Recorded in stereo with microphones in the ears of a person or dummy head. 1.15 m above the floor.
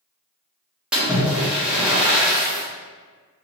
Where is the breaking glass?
I don't hear breaking glass.